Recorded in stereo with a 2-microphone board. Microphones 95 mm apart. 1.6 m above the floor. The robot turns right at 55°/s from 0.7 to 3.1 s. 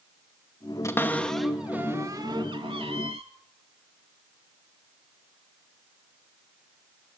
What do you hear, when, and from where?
0.8 s a cupboard door: 30° left (ahead or behind), 2.5 m; by 3.2 s 85° right, 2.5 m